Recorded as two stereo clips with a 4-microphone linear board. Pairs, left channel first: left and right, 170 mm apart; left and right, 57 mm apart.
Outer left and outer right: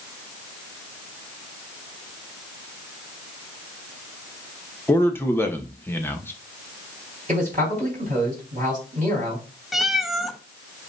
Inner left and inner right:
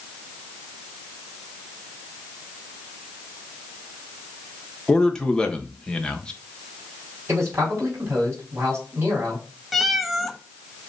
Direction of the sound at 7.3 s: 50° right (ahead or behind).